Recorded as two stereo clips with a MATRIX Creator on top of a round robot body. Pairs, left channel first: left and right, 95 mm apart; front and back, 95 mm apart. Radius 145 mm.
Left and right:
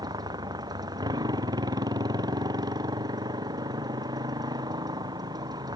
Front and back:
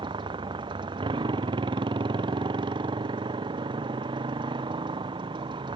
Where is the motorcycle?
140° right.